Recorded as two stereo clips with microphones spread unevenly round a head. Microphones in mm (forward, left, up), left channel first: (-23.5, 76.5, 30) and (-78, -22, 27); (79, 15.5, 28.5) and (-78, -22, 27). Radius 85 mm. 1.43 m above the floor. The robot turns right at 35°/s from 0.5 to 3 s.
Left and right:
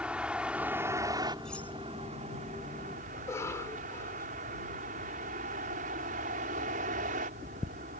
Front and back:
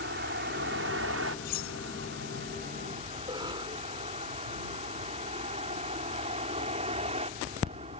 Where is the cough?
125° left.